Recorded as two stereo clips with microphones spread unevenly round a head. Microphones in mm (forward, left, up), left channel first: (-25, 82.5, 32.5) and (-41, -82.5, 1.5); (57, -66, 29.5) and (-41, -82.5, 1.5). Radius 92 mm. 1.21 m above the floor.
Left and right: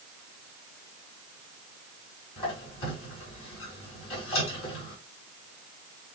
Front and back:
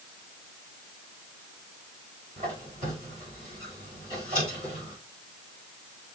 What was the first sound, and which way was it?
A squeak, 75° left.